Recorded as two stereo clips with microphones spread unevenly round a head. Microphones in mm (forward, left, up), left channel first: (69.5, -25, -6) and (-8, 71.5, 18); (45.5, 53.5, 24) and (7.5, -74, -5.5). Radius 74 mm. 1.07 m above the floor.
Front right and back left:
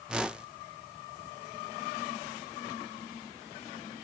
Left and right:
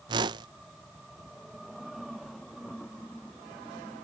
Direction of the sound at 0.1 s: 140° right.